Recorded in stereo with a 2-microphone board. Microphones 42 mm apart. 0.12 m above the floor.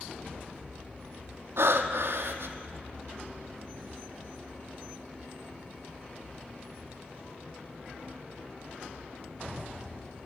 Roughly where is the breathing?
Right.